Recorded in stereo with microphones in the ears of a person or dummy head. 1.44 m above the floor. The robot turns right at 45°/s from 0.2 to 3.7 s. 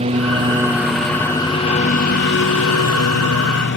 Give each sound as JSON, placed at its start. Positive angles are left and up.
{"t": 0.0, "sound": "a lawn mower", "azimuth_deg": -35}